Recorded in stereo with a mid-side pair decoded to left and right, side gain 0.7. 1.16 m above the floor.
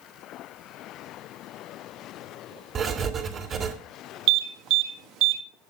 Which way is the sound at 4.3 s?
60° right.